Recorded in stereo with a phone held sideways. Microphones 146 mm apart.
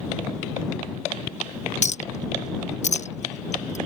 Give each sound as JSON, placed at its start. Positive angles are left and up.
{"t": 1.8, "sound": "a clink", "side_deg": 50}